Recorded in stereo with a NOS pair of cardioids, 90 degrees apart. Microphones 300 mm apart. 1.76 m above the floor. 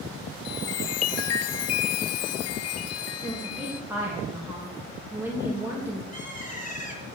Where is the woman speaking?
5° right, 2.5 m.